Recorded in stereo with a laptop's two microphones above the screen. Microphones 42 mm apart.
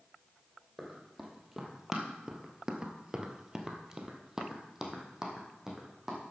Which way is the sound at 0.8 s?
Centre (ahead or behind).